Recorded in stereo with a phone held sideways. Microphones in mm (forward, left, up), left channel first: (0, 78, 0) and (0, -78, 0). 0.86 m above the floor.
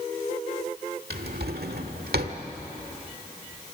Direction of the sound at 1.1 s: 85° right.